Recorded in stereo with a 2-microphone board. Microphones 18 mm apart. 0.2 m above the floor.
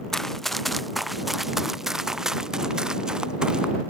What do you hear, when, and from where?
0.1 s running footsteps: 15° left (ahead or behind); by 3.7 s 45° right (ahead or behind)